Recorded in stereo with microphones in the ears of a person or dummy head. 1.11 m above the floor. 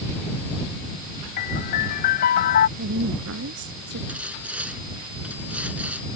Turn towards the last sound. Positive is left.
turn(degrees=-10)  # may be behind; listen again after turning